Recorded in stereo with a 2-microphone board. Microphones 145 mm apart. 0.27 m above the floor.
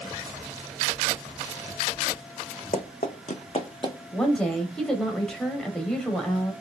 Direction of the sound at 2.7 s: 65° left (ahead or behind).